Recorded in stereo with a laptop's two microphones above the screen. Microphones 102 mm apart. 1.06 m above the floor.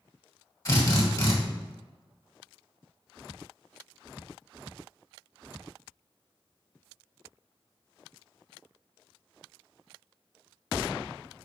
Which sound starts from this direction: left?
A drill, at 0.7 s.